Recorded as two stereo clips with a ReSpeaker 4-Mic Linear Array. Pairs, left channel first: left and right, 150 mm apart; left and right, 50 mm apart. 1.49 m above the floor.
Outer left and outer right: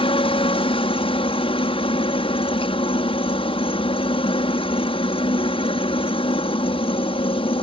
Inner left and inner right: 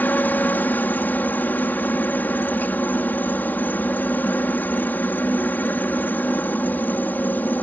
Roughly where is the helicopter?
Left.